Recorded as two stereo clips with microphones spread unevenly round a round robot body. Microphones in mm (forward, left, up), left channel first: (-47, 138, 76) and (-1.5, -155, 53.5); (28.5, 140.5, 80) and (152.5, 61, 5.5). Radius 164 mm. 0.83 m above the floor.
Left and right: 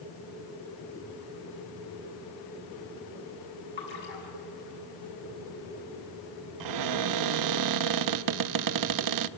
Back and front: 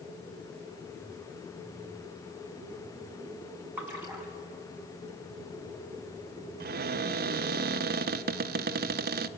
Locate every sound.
3.8 s a splash: 45° left, 6.5 m
6.6 s a cupboard door: 55° right, 0.5 m